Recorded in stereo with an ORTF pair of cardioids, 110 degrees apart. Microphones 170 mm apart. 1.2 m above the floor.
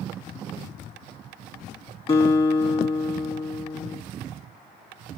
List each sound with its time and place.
2.1 s a guitar: 35° left, 1.3 m